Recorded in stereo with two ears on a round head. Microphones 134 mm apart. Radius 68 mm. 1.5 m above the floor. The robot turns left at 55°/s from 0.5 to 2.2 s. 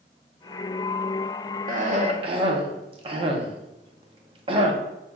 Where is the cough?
60° right (ahead or behind), 0.7 m; by 4.8 s 35° right (ahead or behind), 0.7 m.